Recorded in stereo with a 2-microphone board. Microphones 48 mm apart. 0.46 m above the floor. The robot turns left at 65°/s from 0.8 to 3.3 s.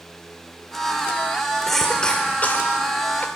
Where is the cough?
5° left (ahead or behind), 1.3 m; by 3.2 s 45° left (ahead or behind), 1.3 m.